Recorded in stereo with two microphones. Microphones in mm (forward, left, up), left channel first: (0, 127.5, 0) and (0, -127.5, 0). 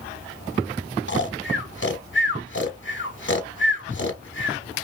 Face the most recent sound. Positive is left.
turn(degrees=50)  # may be behind; listen again after turning